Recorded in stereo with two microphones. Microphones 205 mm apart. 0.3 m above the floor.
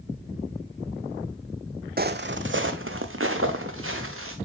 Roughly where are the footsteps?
Right.